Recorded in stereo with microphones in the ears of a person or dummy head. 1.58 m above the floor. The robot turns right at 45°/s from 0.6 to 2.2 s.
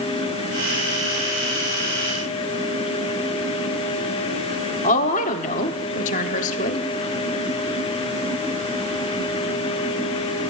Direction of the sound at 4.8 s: 45° left (ahead or behind).